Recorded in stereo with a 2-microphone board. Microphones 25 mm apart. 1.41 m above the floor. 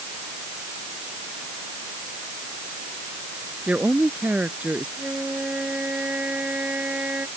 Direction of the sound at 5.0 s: 85° right.